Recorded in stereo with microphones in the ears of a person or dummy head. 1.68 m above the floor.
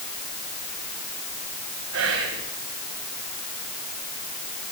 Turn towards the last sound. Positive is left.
turn(degrees=-70)  # may be behind; listen again after turning